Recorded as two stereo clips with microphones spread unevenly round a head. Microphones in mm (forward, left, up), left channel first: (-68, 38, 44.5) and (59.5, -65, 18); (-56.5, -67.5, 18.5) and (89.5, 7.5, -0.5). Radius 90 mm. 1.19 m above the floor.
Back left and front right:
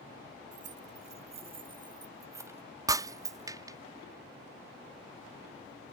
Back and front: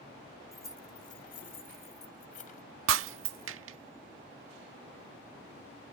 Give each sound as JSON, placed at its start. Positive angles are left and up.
{"t": 0.5, "sound": "keys jangling", "azimuth_deg": -85}
{"t": 2.9, "sound": "breaking glass", "azimuth_deg": 35}